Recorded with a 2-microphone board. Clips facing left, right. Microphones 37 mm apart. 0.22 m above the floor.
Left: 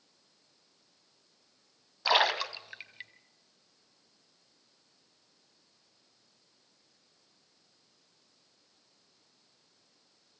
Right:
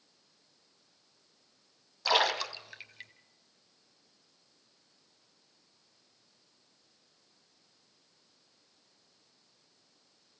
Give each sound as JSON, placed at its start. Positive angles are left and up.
{"t": 2.0, "sound": "a splash", "side_deg": 15, "distance_m": 1.1}